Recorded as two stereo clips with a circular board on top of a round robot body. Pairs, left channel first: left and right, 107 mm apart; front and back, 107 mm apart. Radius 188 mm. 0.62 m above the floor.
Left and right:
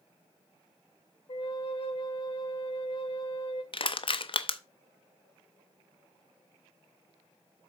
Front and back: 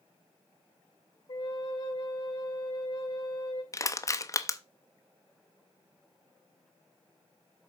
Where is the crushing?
60° left, 1.0 m.